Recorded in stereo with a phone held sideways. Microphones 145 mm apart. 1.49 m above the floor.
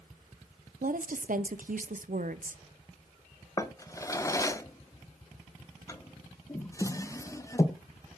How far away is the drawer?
About 0.6 m.